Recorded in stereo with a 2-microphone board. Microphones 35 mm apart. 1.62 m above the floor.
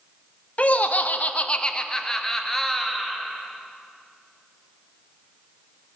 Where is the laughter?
40° left (ahead or behind), 0.6 m; by 3.2 s centre (ahead or behind), 1.7 m.